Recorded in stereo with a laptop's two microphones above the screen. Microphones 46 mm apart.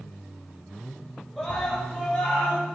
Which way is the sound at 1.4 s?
5° left (ahead or behind).